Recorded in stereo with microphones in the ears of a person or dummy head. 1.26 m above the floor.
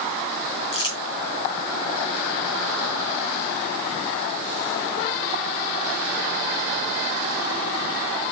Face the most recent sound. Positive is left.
turn(degrees=25)  # may be behind; listen again after turning